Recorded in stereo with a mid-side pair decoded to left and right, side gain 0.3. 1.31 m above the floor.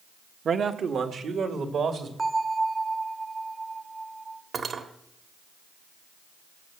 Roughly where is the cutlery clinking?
Ahead right.